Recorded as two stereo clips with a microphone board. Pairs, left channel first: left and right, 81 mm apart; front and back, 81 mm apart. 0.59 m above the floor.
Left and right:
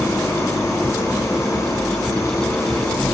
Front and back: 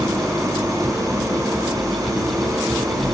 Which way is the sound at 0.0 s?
135° left.